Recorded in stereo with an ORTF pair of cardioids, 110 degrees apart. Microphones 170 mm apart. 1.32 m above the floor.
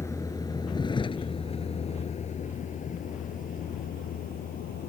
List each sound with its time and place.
0.0 s a vehicle: 15° left; by 4.9 s 60° left